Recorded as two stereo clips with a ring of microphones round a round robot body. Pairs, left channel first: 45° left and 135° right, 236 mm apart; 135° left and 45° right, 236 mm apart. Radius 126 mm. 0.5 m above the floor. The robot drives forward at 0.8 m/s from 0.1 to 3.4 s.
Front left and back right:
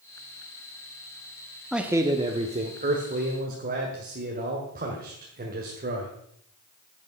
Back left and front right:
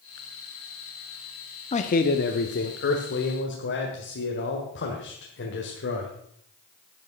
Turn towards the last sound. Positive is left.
turn(degrees=175)